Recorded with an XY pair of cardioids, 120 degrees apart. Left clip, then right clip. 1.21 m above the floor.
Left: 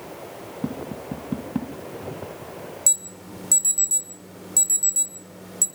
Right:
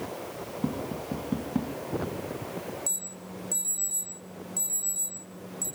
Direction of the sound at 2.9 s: 65° left.